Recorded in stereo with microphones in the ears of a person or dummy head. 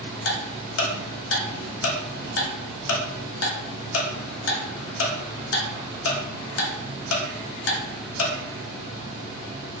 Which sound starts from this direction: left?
Ticking, at 0.2 s.